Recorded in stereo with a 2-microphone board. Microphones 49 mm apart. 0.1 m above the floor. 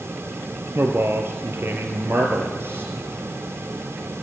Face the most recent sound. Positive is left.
turn(degrees=-50)  # may be behind; listen again after turning